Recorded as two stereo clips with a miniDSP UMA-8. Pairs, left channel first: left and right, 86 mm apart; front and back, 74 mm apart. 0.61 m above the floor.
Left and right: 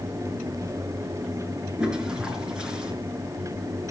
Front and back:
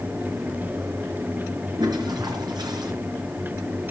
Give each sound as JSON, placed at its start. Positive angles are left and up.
{"t": 1.8, "sound": "a toilet flushing", "azimuth_deg": -170, "distance_m": 4.5}